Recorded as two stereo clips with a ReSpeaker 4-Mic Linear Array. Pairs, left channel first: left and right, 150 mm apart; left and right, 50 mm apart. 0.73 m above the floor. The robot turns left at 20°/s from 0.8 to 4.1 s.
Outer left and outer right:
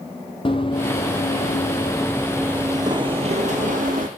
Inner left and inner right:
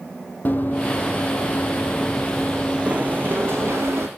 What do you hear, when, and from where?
0.5 s running footsteps: 35° left (ahead or behind), 1.5 m; by 4.1 s 65° right (ahead or behind), 1.7 m